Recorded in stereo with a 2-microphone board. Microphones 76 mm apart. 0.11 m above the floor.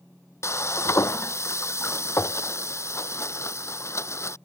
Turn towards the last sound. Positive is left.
turn(degrees=35)  # may be behind; listen again after turning